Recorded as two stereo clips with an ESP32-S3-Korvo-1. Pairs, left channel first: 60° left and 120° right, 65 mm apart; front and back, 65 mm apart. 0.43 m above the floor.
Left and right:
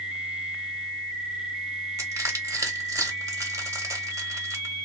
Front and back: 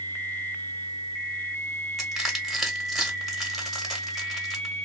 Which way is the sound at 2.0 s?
95° right.